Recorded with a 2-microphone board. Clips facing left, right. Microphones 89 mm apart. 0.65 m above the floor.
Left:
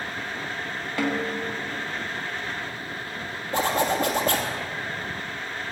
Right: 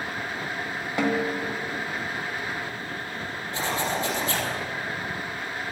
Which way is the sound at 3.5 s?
50° left (ahead or behind).